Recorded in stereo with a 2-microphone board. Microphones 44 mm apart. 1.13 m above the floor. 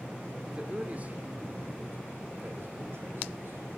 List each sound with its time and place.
0.5 s a man speaking: 20° right (ahead or behind), 2.5 m; by 3.7 s 65° right (ahead or behind), 5 m